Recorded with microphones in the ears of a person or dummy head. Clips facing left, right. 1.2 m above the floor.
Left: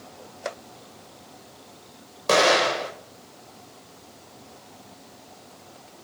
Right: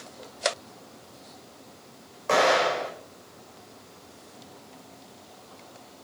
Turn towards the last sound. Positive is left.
turn(degrees=55)  # may be behind; listen again after turning